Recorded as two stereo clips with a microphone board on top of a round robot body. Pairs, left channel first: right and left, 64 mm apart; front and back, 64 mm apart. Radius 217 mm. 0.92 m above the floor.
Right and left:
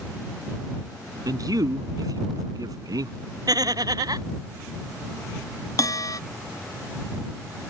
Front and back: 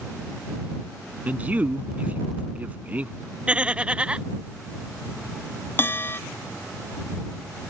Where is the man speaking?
110° left.